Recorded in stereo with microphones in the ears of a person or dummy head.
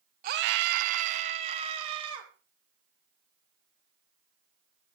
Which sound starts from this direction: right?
A scream, at 0.2 s.